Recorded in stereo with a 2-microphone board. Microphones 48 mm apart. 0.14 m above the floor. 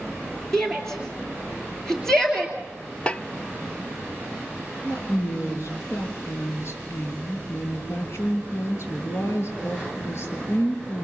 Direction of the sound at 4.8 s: 60° left (ahead or behind).